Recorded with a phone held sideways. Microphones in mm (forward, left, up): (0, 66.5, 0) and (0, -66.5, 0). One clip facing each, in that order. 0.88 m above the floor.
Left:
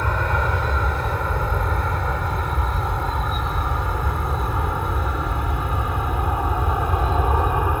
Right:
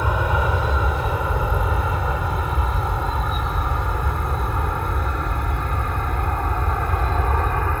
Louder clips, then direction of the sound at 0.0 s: Right 1 dB; 10° right (ahead or behind).